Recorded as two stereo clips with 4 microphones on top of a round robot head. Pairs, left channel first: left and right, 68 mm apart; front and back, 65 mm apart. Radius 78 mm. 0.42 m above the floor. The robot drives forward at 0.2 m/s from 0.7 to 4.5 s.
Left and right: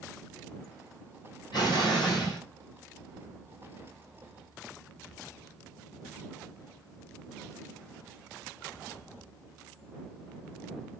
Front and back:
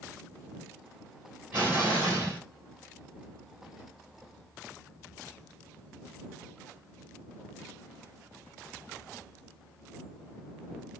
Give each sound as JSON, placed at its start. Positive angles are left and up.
{"t": 1.5, "sound": "an explosion", "azimuth_deg": 125, "distance_m": 1.9}